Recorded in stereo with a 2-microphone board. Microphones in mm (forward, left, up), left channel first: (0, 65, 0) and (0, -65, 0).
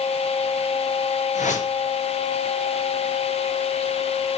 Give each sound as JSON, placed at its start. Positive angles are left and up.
{"t": 1.4, "sound": "a whoosh", "side_deg": 70, "distance_m": 5.0}